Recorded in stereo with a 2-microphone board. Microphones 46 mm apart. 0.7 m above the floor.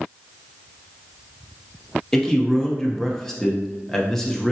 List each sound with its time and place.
2.1 s a man speaking: 10° left (ahead or behind), 0.9 m